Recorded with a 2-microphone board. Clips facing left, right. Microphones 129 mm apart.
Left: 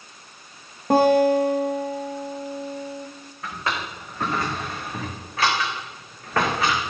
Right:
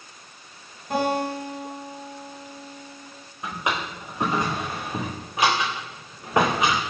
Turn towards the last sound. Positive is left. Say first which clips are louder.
# right 1 dB
turn(degrees=-15)  # may be behind; listen again after turning